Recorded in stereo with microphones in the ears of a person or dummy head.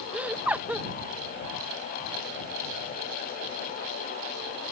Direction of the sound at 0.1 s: 10° right (ahead or behind).